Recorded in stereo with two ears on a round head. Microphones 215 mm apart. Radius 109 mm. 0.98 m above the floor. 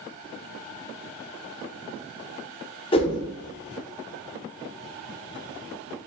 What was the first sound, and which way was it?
A whoosh, 25° left (ahead or behind).